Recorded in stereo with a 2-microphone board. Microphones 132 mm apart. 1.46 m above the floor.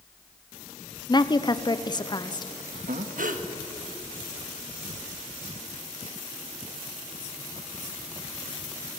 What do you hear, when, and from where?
1.1 s a woman speaking: 30° left (ahead or behind), 0.7 m
2.9 s breathing: 70° right (ahead or behind), 1.4 m